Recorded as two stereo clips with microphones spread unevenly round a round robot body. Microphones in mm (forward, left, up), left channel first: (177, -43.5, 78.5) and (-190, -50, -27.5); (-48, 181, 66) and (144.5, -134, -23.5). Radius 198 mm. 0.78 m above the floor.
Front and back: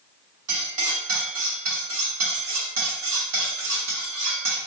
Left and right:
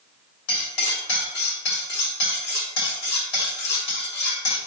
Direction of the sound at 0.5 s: 125° left.